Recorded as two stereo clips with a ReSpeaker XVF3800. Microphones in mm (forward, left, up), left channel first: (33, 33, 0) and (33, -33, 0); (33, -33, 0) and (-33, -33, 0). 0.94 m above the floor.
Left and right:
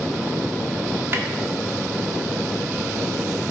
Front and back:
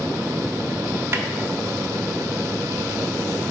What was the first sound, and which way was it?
A snare drum, 135° right.